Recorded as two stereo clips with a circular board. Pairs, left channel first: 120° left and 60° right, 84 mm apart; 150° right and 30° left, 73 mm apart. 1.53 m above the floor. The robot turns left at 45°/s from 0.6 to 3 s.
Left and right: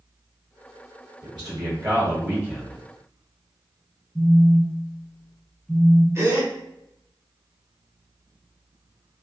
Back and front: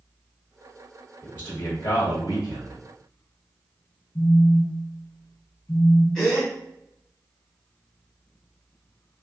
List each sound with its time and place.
1.2 s a man speaking: 85° right, 1.2 m; by 2.8 s 155° right, 1.2 m
4.2 s a phone buzzing: 155° right, 0.6 m
6.2 s a gasp: 70° right, 1.6 m